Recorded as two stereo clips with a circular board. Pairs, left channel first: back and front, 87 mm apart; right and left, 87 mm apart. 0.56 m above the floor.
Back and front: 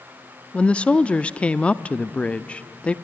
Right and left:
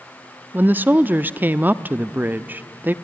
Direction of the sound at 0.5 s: 120° left.